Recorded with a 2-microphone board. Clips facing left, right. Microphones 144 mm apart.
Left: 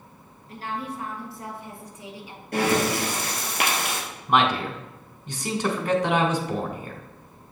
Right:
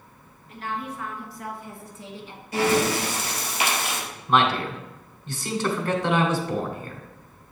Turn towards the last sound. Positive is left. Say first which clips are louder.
# even
turn(degrees=15)  # may be behind; listen again after turning